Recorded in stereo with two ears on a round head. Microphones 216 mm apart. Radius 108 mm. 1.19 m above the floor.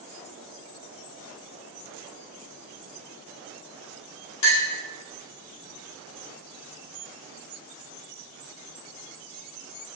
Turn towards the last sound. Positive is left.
turn(degrees=80)